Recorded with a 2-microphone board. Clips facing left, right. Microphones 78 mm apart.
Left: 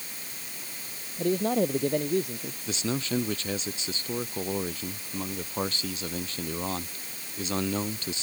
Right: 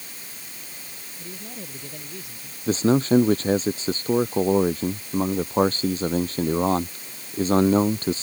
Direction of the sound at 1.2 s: 65° left (ahead or behind).